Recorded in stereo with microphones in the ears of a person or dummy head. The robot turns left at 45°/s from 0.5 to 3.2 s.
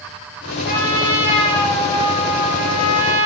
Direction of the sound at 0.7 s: 145° right.